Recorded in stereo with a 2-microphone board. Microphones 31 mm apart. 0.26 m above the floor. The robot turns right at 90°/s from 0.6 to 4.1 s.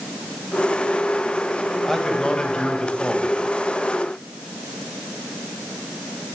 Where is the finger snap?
No finger snap in this recording.